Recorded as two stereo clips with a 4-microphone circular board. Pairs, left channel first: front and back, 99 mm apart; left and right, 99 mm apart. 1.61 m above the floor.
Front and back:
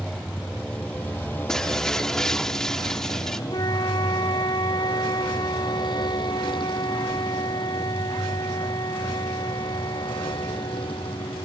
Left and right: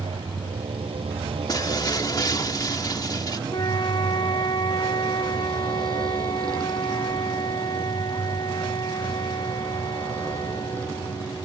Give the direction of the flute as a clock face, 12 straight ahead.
10 o'clock.